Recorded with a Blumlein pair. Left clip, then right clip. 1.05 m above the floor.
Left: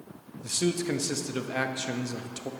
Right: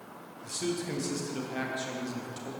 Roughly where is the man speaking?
Ahead left.